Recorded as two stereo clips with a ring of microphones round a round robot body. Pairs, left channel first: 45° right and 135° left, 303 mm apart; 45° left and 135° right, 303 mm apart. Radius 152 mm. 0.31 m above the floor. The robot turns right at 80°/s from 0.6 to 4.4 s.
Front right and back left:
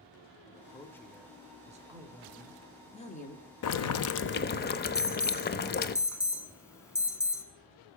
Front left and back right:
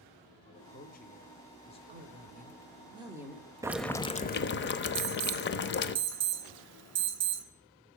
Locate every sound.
0.5 s a man speaking: 5° left, 1.0 m; by 1.8 s 100° left, 1.0 m
1.9 s a woman speaking: 165° right, 1.0 m; by 3.5 s 45° right, 1.0 m
3.6 s boiling: 60° right, 0.6 m; by 6.0 s 5° left, 0.6 m
5.0 s an alarm: 120° right, 1.4 m